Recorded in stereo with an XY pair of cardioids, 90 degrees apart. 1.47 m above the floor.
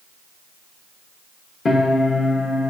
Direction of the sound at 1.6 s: 45° left.